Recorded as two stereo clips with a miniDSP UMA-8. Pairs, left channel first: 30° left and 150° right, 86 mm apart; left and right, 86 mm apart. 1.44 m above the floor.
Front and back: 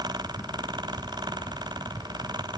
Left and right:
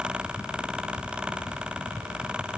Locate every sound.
Only background noise.